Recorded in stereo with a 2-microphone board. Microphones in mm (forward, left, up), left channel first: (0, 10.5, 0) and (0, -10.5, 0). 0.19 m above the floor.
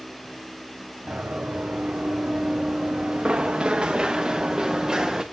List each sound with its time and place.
1.1 s running footsteps: 85° right, 1.9 m; by 5.2 s 20° right (ahead or behind), 1.9 m